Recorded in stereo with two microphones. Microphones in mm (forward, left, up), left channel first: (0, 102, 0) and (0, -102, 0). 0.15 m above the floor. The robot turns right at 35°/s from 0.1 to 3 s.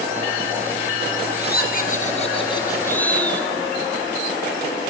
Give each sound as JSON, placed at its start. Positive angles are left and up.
{"t": 1.4, "sound": "laughter", "azimuth_deg": 115, "distance_m": 2.5}